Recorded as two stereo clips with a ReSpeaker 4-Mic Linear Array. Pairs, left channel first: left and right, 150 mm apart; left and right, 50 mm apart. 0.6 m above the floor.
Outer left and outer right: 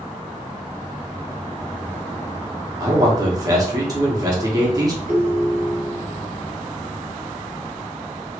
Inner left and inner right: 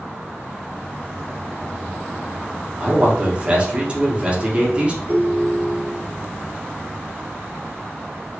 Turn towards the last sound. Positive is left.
turn(degrees=-75)  # may be behind; listen again after turning